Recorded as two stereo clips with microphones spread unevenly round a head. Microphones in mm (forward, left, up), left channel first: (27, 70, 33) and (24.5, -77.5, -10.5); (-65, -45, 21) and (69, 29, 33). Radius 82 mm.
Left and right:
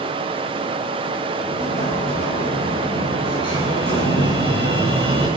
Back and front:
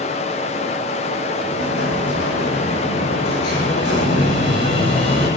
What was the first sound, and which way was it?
Running water, 150° right.